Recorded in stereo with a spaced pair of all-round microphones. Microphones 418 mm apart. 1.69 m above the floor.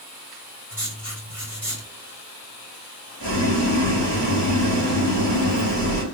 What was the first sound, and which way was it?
Writing, 30° right (ahead or behind).